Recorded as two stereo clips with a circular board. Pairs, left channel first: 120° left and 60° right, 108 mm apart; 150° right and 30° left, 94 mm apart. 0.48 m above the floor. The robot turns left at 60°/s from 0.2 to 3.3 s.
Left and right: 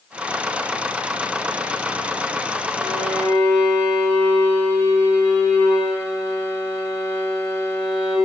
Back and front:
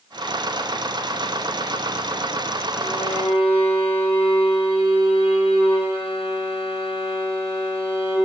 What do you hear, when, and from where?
2.8 s a violin: 140° right, 5 m; by 8.2 s 170° right, 5 m